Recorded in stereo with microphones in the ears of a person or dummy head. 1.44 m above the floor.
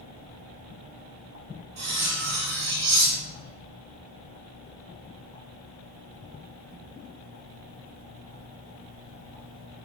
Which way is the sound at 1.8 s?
60° right (ahead or behind).